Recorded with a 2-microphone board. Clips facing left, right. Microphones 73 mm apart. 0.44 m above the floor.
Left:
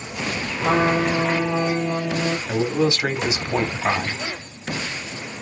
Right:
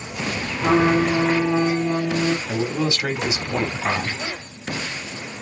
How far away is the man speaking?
About 0.9 m.